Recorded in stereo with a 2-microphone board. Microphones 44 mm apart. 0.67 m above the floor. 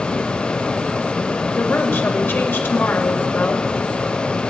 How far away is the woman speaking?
About 3 m.